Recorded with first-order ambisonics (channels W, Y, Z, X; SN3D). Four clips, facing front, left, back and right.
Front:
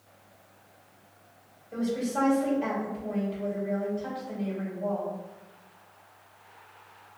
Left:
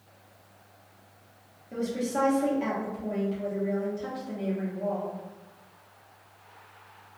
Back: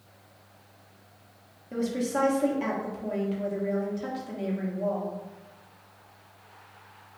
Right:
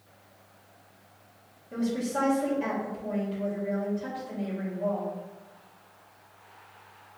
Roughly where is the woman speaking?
Behind.